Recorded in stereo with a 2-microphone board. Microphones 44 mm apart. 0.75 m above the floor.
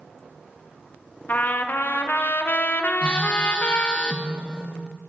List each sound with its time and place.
1.3 s a trumpet: 45° left (ahead or behind), 0.5 m
3.0 s a phone buzzing: 25° left (ahead or behind), 0.7 m